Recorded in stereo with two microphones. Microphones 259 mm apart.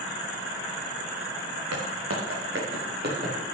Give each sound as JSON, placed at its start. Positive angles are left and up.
{"t": 1.7, "sound": "footsteps", "side_deg": -65, "distance_m": 2.5}